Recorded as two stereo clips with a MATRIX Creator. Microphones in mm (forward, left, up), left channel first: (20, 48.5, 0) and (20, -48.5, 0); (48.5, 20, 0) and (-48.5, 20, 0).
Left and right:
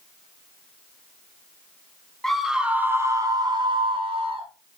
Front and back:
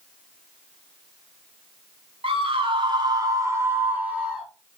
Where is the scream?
175° left, 2.0 m; by 4.5 s 100° right, 3 m.